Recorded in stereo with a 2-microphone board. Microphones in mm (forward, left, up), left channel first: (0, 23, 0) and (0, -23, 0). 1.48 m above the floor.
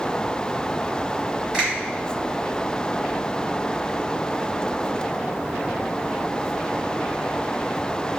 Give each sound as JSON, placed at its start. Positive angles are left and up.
{"t": 1.5, "sound": "a finger snap", "side_deg": -20, "distance_m": 1.9}